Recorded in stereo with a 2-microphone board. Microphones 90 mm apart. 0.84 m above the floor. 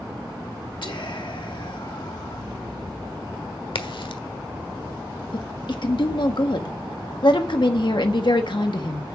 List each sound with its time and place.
0.8 s whispering: 60° left (ahead or behind), 1.2 m
3.8 s a crack: 65° left (ahead or behind), 1.4 m
5.3 s a woman speaking: 60° left (ahead or behind), 1.4 m